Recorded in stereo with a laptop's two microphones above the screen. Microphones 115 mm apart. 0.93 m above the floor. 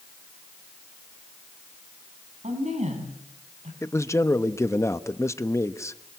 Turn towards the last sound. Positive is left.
turn(degrees=25)  # may be behind; listen again after turning